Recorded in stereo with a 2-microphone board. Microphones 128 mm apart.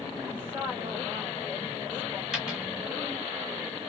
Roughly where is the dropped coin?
Centre.